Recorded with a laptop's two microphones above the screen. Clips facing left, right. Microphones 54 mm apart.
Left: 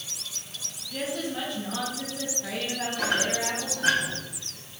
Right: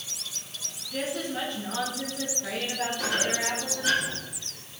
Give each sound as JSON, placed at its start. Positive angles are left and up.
{"t": 0.9, "sound": "a woman speaking", "side_deg": 0, "distance_m": 2.5}
{"t": 3.0, "sound": "a squeak", "side_deg": 65, "distance_m": 4.0}